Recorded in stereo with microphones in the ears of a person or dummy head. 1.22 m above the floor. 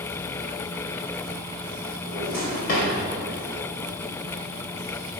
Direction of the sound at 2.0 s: 45° left (ahead or behind).